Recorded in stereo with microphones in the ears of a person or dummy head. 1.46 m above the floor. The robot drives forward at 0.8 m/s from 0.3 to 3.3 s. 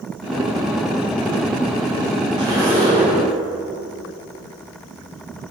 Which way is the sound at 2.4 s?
25° right (ahead or behind).